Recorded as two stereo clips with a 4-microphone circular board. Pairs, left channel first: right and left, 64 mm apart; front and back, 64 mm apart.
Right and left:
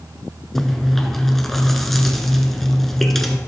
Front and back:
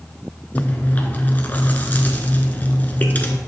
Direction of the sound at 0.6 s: 10° right.